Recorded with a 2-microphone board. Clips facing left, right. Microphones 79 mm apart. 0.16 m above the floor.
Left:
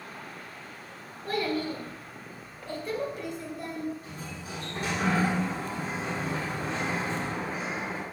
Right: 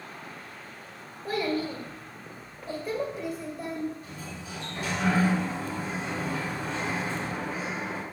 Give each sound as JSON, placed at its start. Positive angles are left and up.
{"t": 1.2, "sound": "a child speaking", "side_deg": -5, "distance_m": 1.8}
{"t": 4.0, "sound": "a sliding door", "side_deg": 45, "distance_m": 1.9}